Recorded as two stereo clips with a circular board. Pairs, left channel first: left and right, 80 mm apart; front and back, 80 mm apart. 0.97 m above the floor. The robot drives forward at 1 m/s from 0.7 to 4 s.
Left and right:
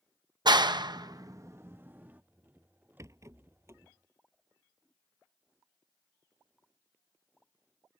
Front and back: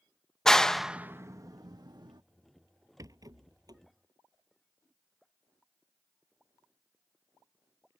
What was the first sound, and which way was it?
A clap, 85° right.